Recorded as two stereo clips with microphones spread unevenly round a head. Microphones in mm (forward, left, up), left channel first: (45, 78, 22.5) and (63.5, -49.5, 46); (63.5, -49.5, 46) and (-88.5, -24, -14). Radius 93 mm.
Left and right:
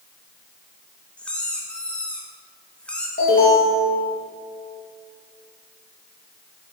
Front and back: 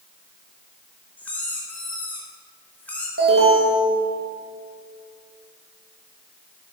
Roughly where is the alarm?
Behind left.